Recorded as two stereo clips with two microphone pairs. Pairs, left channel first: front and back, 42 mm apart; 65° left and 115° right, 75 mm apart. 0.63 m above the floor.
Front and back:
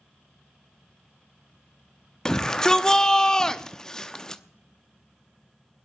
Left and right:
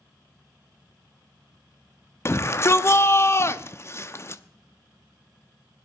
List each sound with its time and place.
2.2 s a shout: 60° left, 0.7 m